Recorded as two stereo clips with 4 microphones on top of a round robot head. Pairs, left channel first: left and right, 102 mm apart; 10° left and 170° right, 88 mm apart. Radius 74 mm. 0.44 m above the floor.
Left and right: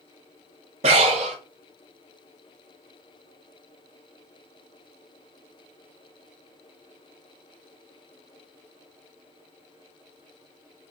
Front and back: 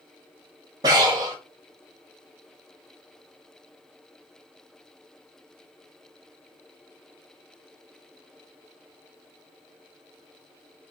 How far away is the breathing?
About 0.7 m.